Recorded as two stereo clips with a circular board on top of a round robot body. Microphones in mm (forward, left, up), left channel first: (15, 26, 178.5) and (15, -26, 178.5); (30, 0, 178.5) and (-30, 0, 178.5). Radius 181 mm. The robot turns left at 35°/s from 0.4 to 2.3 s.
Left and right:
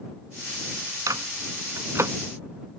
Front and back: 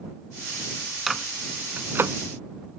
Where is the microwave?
95° right; by 2.1 s 130° right.